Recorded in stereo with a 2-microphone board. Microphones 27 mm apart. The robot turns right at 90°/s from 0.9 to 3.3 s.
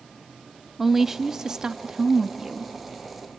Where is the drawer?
I don't hear a drawer.